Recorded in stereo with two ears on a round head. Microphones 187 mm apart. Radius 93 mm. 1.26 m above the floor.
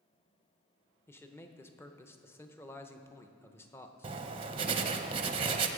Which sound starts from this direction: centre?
A man speaking, at 1.1 s.